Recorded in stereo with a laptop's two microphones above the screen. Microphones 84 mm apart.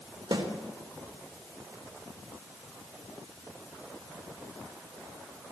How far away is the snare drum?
About 2.5 m.